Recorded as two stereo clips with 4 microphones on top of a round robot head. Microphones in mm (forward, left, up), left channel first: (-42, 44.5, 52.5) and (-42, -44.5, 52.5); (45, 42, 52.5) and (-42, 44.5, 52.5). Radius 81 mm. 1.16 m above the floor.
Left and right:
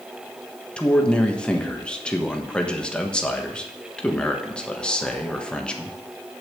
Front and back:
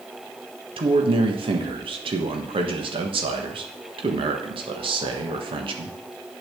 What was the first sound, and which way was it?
A man speaking, 170° left.